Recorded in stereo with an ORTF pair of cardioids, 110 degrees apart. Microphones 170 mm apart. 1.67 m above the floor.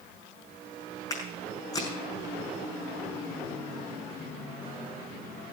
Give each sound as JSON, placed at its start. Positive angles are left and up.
{"t": 1.1, "sound": "footsteps", "azimuth_deg": 20, "distance_m": 5.5}